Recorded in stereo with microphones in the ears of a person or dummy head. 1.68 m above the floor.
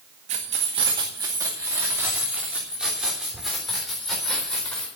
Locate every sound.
0.3 s keys jangling: 35° right (ahead or behind), 1.8 m; by 4.9 s 5° left (ahead or behind), 4.5 m